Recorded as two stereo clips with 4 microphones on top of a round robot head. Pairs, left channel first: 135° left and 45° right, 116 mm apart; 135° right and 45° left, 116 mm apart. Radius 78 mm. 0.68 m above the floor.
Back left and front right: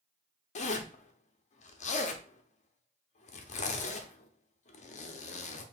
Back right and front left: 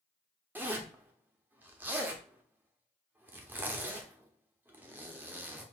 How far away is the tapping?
No tapping in this recording.